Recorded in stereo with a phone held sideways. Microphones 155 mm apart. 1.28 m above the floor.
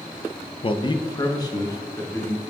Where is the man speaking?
35° left (ahead or behind), 0.5 m; by 2.4 s 20° left (ahead or behind), 2 m.